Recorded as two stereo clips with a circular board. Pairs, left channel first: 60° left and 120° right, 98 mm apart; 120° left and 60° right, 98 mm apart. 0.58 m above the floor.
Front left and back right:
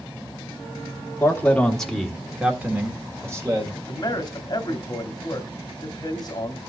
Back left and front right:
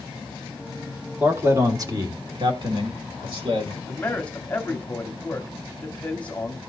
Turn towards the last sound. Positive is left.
turn(degrees=50)